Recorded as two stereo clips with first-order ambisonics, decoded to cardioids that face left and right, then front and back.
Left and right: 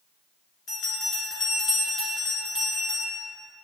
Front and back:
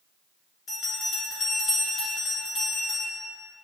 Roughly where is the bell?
Ahead left.